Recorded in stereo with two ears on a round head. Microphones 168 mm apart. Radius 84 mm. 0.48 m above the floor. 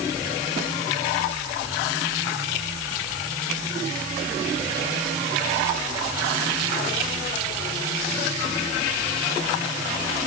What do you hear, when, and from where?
Only background noise.